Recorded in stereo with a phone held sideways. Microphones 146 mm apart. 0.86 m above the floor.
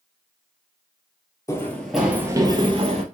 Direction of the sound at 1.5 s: 20° left (ahead or behind).